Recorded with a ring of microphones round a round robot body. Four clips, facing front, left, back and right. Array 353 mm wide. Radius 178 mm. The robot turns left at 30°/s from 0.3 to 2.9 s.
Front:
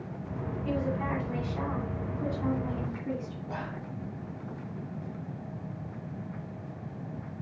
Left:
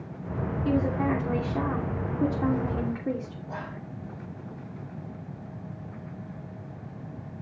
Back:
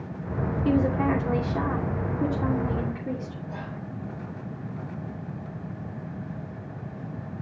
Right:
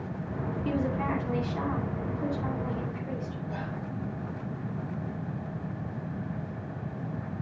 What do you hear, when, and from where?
0.7 s a woman speaking: 175° left, 3 m; by 3.4 s 105° left, 3 m
3.5 s whispering: 60° left, 5 m